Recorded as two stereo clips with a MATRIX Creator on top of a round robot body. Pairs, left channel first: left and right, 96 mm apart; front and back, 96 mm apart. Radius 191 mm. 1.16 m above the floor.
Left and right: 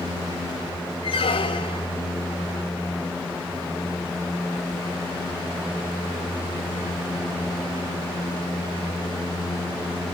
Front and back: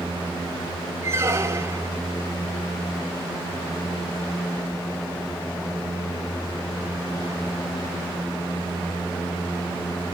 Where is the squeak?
120° left, 1.2 m.